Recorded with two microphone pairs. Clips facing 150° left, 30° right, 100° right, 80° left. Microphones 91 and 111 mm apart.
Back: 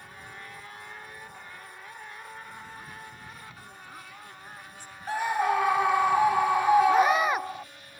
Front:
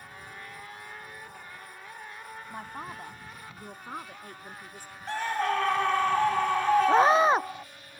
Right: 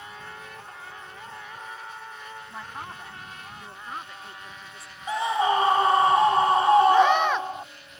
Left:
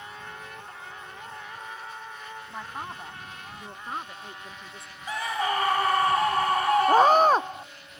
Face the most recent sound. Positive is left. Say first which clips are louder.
# front 2 dB, left 1 dB
turn(degrees=30)